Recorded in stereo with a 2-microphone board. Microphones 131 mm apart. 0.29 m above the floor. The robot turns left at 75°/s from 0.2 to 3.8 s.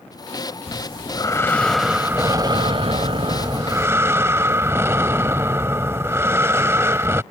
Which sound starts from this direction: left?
Breathing, at 0.7 s.